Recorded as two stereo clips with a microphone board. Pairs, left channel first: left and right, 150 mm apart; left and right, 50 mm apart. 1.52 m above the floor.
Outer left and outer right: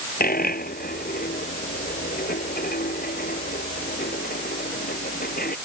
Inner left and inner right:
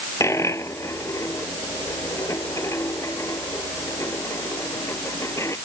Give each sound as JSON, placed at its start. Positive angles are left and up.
{"t": 0.2, "sound": "a dropped coin", "side_deg": 80}